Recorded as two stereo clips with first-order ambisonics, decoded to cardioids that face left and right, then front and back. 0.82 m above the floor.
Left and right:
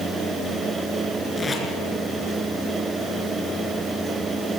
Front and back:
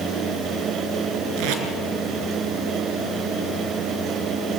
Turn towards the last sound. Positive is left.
turn(degrees=170)